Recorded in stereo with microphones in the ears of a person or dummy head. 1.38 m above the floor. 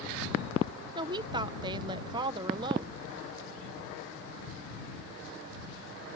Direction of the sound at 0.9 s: 30° right (ahead or behind).